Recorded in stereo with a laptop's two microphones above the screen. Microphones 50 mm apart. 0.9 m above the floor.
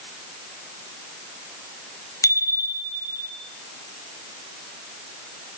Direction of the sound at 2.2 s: 90° left.